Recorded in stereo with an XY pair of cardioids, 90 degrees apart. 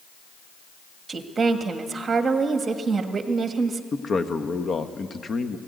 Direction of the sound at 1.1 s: 40° right.